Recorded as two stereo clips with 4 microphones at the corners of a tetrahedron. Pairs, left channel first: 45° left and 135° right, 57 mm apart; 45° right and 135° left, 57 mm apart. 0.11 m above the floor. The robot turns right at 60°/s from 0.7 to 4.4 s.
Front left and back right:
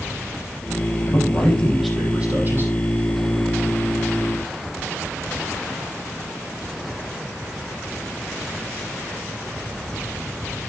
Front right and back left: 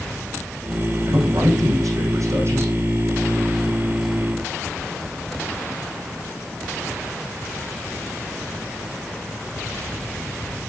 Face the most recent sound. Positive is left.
turn(degrees=-70)